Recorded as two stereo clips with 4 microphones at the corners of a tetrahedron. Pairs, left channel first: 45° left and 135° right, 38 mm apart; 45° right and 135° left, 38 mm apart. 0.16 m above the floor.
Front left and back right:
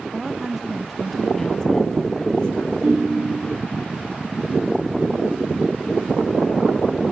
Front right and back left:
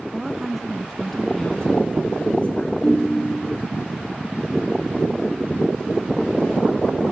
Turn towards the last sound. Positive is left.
turn(degrees=-100)